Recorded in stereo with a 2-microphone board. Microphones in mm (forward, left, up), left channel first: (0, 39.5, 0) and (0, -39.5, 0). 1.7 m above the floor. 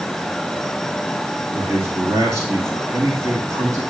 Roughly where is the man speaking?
Right.